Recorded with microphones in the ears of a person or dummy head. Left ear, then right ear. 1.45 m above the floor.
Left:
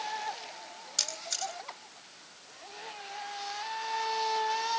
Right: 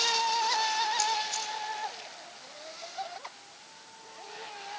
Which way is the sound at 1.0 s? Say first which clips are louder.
Right 4 dB; 55° left (ahead or behind).